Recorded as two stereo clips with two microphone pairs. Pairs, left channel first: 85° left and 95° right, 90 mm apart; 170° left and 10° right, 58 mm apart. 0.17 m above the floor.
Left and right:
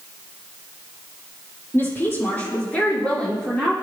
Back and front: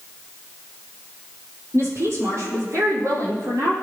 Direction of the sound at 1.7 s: 25° left.